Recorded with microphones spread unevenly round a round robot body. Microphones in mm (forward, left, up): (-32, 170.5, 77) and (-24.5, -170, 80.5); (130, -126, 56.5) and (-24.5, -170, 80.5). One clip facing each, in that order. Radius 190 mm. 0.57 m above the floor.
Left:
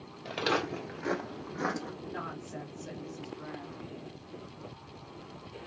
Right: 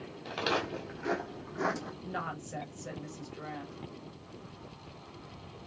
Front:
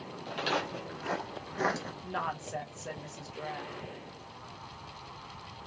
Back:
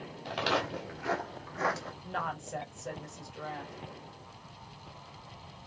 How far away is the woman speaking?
About 1.4 m.